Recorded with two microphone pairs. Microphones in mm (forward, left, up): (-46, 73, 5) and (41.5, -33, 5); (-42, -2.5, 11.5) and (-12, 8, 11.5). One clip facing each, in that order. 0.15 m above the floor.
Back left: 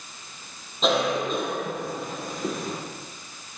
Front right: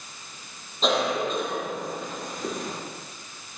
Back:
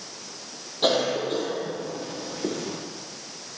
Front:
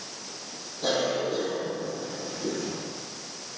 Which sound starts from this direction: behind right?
A cough, at 0.8 s.